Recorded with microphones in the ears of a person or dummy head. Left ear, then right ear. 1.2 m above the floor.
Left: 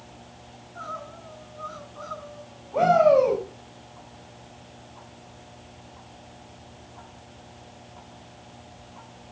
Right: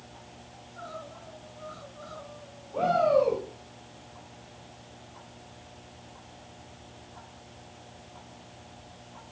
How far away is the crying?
About 10 m.